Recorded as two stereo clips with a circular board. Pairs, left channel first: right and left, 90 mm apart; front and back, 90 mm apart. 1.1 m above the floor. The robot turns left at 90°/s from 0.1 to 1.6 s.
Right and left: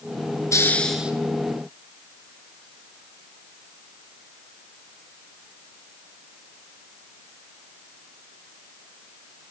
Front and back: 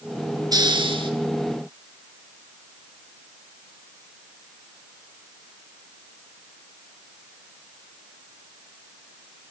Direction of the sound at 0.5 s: 140° right.